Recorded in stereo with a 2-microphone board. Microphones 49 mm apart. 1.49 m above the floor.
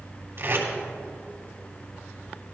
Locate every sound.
0.4 s tape being pulled: 55° right (ahead or behind), 3 m